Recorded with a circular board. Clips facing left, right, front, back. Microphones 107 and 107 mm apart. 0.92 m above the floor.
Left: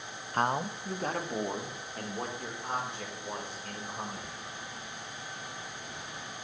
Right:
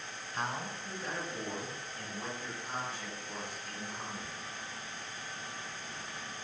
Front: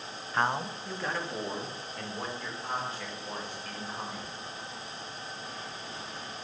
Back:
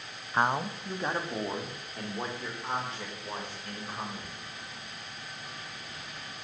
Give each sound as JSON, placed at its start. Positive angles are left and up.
{"t": 0.3, "sound": "a man speaking", "azimuth_deg": 105, "distance_m": 0.6}